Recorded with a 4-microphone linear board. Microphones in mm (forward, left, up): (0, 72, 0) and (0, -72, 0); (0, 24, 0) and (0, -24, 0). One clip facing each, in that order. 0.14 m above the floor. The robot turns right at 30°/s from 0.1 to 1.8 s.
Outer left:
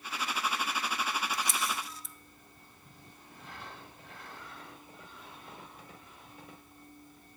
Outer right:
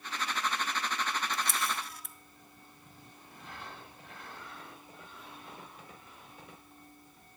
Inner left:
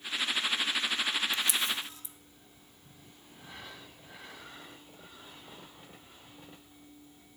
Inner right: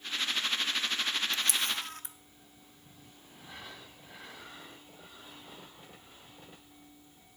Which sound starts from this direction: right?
A camera shutter, at 1.3 s.